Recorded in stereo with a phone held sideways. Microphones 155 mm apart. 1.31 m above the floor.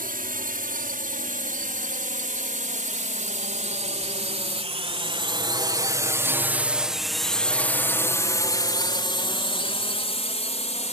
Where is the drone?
70° right (ahead or behind); by 10.9 s 45° left (ahead or behind).